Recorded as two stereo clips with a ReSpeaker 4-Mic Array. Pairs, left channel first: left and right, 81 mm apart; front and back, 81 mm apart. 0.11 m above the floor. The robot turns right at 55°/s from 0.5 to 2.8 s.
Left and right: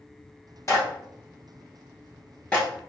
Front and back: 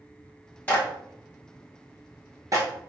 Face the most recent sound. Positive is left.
turn(degrees=180)